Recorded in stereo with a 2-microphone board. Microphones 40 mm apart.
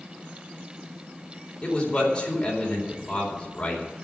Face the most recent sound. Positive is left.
turn(degrees=25)  # may be behind; listen again after turning